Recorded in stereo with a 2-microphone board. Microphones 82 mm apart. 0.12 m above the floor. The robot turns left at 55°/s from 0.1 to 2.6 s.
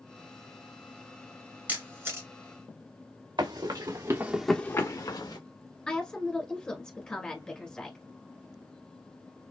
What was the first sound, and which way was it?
A camera shutter, 20° right (ahead or behind).